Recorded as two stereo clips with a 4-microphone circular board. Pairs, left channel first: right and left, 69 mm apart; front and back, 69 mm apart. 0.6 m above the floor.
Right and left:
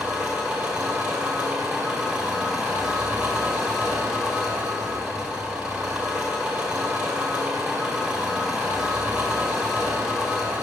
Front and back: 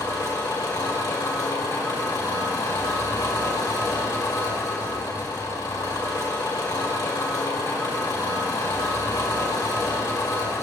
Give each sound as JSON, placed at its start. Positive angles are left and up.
{"t": 0.0, "sound": "an engine running", "azimuth_deg": 15, "distance_m": 1.7}